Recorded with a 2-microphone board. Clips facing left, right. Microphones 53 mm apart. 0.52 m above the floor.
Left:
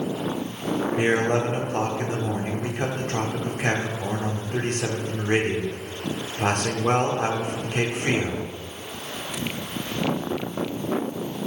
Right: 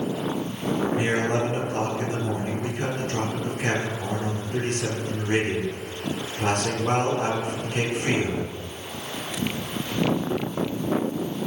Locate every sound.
1.0 s a man speaking: 45° left (ahead or behind), 1.6 m